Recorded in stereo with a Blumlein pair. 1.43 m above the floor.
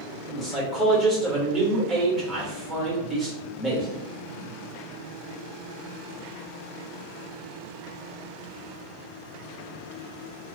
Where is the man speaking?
15° right, 1.2 m.